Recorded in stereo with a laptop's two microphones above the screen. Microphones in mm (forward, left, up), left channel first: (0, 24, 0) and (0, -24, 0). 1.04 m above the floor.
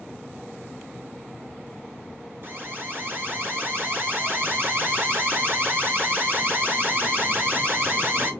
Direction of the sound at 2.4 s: 50° right (ahead or behind).